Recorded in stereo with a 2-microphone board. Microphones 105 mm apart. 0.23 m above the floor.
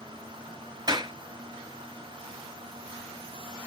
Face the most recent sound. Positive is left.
turn(degrees=-40)  # may be behind; listen again after turning